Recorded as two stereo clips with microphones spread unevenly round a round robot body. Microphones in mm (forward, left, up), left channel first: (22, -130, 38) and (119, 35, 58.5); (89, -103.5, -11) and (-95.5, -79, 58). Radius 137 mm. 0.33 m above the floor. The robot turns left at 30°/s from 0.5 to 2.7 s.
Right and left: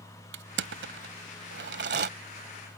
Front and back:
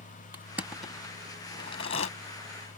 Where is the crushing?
80° left; by 2.1 s 35° left.